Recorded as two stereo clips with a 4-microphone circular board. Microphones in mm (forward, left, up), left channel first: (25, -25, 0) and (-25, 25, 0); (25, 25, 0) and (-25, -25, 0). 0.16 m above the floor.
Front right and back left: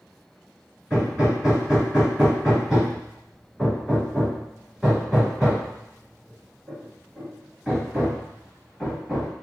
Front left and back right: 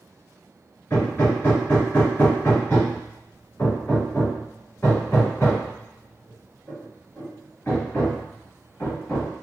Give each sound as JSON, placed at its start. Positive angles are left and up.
{"t": 0.9, "sound": "hammering", "azimuth_deg": 55, "distance_m": 1.3}